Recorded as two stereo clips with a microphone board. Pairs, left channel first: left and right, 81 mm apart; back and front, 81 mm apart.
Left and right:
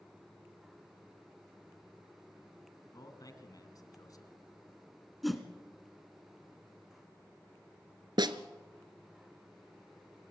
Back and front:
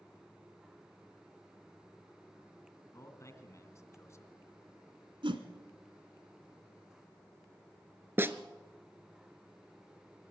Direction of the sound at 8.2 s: 65° right.